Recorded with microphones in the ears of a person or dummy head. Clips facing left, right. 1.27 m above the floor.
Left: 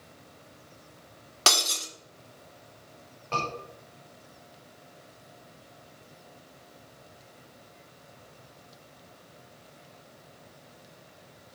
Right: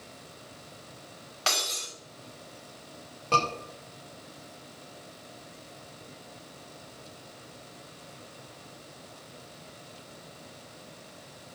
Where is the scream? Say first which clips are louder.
Right 5 dB; 45° right (ahead or behind), 5 m.